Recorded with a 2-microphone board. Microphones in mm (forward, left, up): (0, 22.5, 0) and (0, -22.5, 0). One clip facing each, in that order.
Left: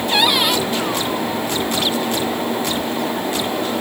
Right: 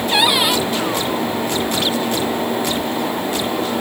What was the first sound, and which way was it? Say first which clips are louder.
A cupboard door: right 1 dB; 5° right (ahead or behind).